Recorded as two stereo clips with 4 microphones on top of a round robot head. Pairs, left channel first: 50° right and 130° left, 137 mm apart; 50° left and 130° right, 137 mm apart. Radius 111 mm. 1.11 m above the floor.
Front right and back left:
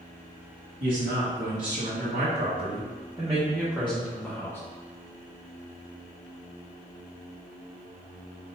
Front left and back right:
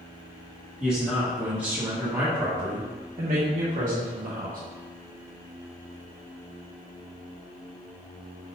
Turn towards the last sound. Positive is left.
turn(degrees=-125)